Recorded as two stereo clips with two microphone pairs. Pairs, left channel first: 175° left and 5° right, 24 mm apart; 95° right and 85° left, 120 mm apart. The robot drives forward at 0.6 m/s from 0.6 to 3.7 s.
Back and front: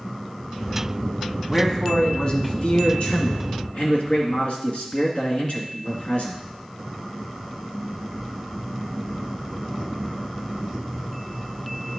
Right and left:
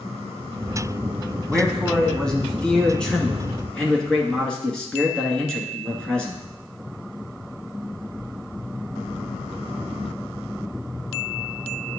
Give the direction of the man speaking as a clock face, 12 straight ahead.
6 o'clock.